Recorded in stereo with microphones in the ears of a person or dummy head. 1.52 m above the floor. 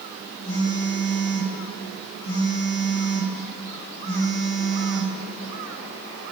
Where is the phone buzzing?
25° left (ahead or behind), 4 m.